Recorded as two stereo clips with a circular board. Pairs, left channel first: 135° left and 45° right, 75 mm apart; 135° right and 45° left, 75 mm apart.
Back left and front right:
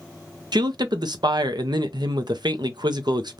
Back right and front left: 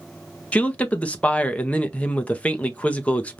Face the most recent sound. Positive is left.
turn(degrees=-65)